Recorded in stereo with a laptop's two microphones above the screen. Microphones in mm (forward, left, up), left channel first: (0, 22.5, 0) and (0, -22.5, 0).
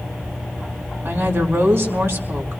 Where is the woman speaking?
65° right (ahead or behind), 4 m.